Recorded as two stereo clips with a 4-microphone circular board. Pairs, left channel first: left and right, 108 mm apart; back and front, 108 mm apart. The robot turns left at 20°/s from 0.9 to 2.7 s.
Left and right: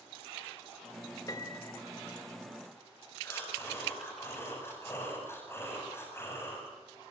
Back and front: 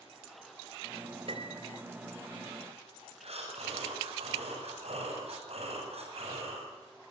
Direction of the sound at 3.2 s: 20° left.